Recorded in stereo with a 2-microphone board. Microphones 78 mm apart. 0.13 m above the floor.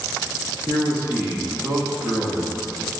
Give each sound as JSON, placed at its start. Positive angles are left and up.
{"t": 0.7, "sound": "a man speaking", "side_deg": -60, "distance_m": 5.5}